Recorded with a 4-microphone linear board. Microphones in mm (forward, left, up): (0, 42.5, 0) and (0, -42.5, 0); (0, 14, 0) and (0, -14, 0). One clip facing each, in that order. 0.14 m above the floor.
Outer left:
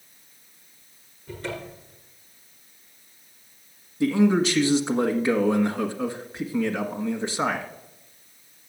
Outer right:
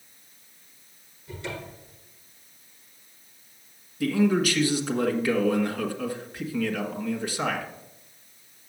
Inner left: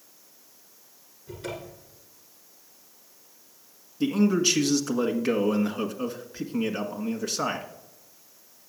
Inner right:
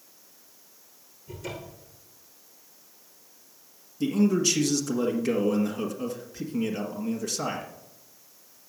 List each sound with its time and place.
1.3 s a cupboard door: 40° left (ahead or behind), 5.5 m
4.0 s a man speaking: 25° left (ahead or behind), 1.6 m